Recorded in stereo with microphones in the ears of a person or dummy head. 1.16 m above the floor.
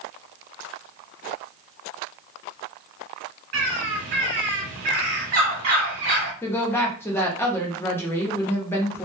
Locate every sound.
3.5 s a bird: 35° right (ahead or behind), 1.1 m
6.4 s a woman speaking: 5° left (ahead or behind), 0.6 m